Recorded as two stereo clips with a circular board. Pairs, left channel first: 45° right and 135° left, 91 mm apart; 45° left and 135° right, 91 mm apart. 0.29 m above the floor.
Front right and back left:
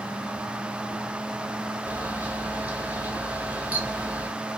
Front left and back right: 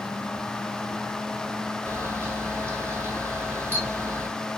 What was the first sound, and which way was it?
A camera shutter, 170° right.